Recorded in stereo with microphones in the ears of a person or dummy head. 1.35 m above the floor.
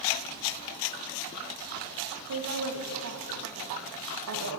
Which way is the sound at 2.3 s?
80° right.